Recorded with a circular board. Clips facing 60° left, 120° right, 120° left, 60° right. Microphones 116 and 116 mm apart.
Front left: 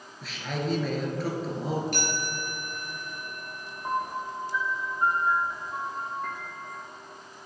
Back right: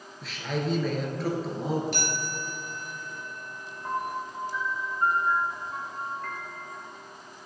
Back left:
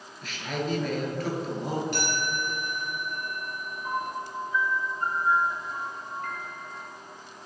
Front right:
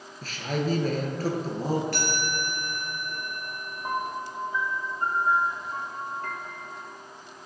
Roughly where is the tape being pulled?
No tape being pulled in this recording.